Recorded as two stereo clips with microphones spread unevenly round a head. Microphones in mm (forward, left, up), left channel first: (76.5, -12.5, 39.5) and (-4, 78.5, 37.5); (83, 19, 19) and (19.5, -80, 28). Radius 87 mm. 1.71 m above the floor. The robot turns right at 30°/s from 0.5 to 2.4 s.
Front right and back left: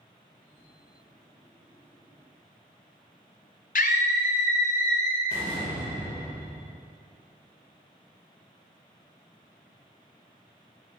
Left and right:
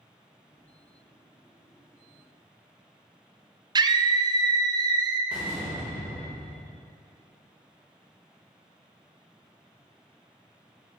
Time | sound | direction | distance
3.8 | a scream | 80° right | 0.6 m
5.3 | a door slam | 165° left | 1.1 m